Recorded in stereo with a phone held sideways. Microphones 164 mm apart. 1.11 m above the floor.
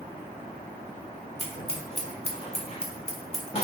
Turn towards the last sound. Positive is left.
turn(degrees=40)  # may be behind; listen again after turning